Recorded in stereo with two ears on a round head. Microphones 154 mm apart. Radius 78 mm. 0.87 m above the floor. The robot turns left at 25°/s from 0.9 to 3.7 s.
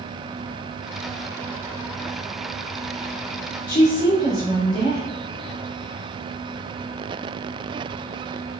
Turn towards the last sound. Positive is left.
turn(degrees=45)  # may be behind; listen again after turning